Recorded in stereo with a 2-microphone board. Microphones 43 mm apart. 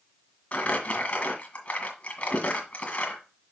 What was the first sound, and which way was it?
Crumpling, 30° left (ahead or behind).